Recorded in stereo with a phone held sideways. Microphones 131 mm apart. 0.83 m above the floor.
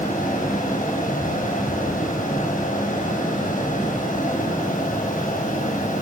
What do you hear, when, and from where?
0.0 s a fan: 70° left (ahead or behind), 6.5 m